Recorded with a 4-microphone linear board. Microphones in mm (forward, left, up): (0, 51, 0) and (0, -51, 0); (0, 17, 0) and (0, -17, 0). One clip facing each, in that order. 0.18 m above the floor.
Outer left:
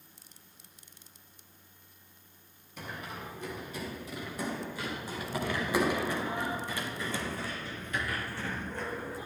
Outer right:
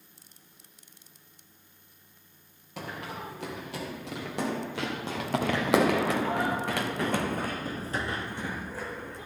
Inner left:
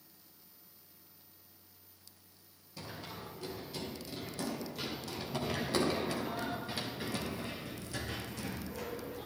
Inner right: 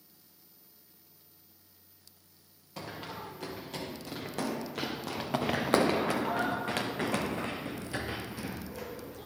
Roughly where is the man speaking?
I don't hear a man speaking.